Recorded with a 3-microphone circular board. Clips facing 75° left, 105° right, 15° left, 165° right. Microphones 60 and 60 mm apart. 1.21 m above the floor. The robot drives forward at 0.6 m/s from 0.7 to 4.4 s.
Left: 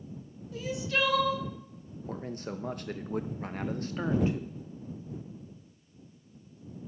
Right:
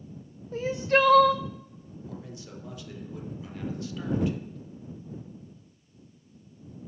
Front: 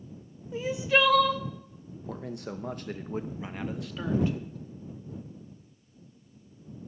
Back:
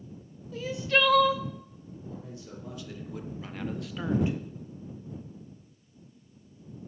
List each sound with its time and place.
0.5 s crying: 50° right, 0.8 m; by 1.4 s 90° right, 0.7 m
2.1 s a man speaking: 30° left, 1.1 m; by 4.6 s 135° left, 0.8 m